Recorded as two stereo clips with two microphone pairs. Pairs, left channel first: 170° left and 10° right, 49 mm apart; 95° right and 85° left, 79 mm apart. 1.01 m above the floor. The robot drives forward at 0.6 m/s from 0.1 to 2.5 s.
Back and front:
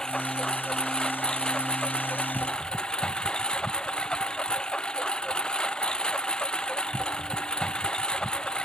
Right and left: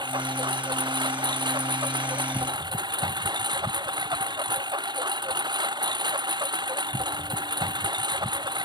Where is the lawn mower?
95° left; by 8.7 s 100° left.